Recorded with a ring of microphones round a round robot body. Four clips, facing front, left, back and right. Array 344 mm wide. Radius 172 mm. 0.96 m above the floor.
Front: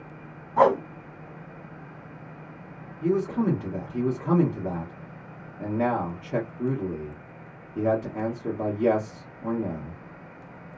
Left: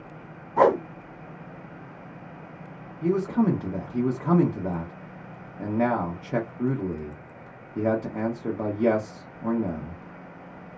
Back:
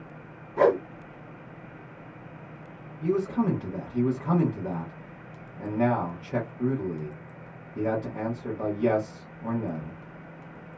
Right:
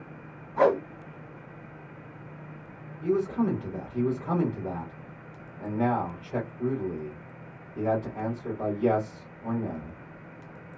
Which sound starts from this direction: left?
A man speaking, at 3.0 s.